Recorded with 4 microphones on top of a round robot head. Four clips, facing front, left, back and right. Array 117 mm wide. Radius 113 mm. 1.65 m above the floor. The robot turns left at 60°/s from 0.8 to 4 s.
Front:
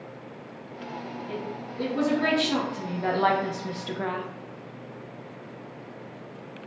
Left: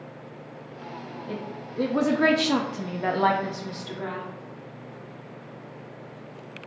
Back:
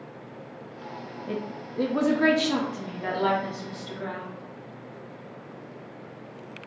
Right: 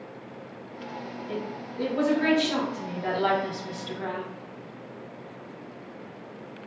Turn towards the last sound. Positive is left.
turn(degrees=5)